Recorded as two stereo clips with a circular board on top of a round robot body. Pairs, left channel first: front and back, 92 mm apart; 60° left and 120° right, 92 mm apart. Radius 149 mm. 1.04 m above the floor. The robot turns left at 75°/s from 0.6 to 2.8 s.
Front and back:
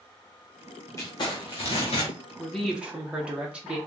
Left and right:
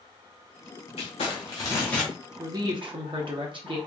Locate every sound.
1.0 s crumpling: 55° left, 0.6 m; by 2.1 s 30° right, 0.6 m
2.4 s a woman speaking: 70° right, 0.8 m; by 3.8 s 105° right, 0.8 m